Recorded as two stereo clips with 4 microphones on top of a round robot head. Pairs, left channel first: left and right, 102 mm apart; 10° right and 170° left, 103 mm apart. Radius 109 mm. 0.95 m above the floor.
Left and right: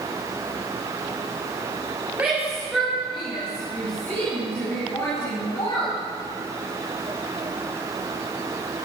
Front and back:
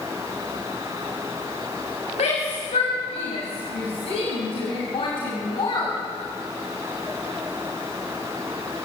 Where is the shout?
10° right, 7 m; by 5.9 s 35° left, 8 m.